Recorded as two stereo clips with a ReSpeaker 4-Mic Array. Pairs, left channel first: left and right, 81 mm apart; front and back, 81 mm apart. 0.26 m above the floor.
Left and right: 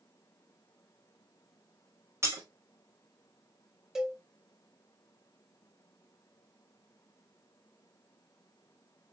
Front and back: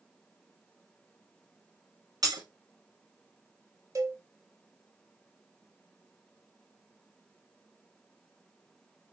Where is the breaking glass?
140° right, 1.6 m.